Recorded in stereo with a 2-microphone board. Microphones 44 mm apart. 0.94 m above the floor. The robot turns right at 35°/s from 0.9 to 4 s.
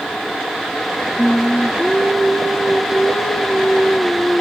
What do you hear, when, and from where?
1.2 s singing: 20° left, 1.2 m; by 4.4 s 120° left, 1.2 m